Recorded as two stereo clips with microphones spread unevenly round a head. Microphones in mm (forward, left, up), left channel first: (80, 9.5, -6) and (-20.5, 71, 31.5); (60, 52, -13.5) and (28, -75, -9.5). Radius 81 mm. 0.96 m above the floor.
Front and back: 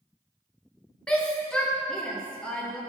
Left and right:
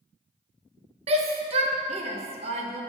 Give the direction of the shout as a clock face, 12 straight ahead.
3 o'clock.